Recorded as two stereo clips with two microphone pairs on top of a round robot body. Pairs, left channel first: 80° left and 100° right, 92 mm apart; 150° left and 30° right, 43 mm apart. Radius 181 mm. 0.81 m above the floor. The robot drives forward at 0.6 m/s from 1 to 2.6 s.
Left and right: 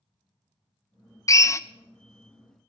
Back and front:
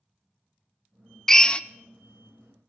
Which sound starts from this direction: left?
A drill, at 1.3 s.